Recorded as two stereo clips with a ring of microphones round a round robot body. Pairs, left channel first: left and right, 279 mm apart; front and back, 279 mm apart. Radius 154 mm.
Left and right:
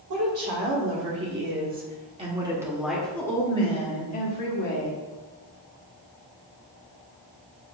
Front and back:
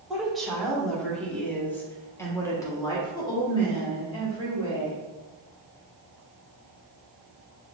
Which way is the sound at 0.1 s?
90° right.